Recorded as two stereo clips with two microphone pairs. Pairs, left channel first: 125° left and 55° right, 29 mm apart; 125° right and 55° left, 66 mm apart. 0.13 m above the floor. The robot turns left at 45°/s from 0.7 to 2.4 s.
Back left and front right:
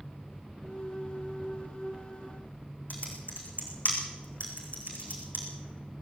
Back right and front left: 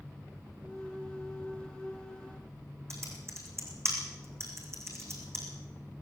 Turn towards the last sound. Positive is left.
turn(degrees=100)